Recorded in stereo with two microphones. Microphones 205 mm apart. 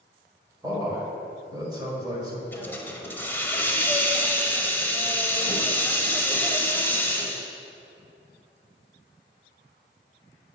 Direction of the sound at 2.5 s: 10° left (ahead or behind).